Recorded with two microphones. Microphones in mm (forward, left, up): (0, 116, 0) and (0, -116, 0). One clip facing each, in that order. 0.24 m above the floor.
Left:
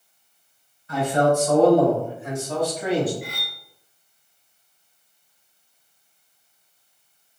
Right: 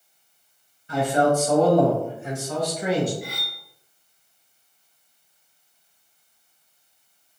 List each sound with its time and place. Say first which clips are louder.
0.9 s a man speaking: even; 20° right (ahead or behind), 1.7 m; by 3.1 s 40° left (ahead or behind), 2.0 m
3.2 s cutlery clinking: even; 55° left (ahead or behind), 1.8 m